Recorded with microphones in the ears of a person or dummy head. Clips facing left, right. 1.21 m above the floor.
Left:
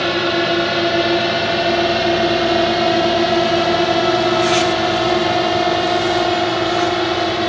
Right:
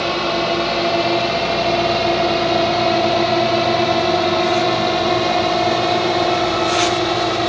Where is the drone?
15° left (ahead or behind); by 7.5 s centre (ahead or behind).